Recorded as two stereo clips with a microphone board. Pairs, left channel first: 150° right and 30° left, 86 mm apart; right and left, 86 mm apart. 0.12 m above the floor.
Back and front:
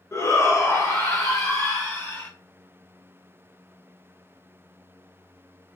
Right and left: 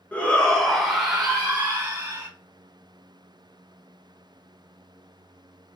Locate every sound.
0.1 s a shout: 150° right, 1.2 m; by 2.3 s 155° left, 2 m